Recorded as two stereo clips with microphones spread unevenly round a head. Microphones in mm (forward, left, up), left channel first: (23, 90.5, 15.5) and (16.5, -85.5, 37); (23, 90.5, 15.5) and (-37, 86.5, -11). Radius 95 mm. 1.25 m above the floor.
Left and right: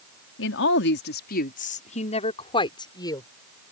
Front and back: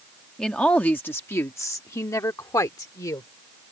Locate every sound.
0.4 s a woman speaking: 80° left; by 3.3 s 15° left